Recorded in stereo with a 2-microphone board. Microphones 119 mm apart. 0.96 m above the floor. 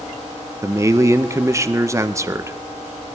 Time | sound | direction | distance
0.6 | a man speaking | 25° right (ahead or behind) | 0.7 m